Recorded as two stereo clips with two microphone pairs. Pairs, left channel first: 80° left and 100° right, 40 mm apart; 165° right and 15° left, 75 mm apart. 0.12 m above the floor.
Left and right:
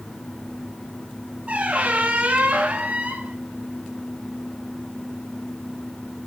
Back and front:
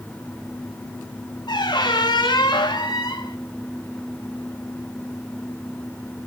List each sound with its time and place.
1.5 s a squeak: 160° right, 1.2 m